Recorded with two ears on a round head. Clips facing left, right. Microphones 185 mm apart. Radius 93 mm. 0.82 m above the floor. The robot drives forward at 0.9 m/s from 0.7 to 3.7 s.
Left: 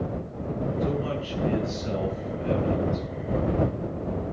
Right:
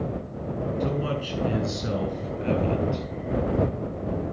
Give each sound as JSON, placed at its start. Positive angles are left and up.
{"t": 0.8, "sound": "a man speaking", "side_deg": -60, "distance_m": 8.0}